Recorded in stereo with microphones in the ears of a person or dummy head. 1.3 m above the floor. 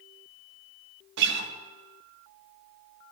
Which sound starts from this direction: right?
A guitar, at 1.2 s.